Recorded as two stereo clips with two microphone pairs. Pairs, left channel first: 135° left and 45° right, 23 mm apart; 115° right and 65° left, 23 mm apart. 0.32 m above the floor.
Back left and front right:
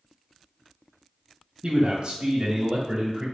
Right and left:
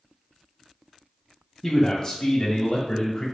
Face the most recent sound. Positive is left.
turn(degrees=-105)